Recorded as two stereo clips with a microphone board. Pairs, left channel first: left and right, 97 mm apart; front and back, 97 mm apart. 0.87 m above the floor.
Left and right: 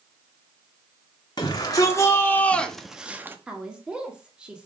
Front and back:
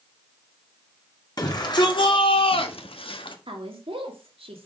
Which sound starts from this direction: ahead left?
A shout, at 1.4 s.